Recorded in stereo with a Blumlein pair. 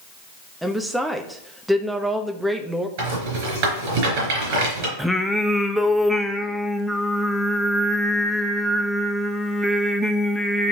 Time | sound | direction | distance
0.6 | a woman speaking | 5° right | 1.0 m
3.0 | a rattle | 50° right | 4 m
5.0 | singing | straight ahead | 0.7 m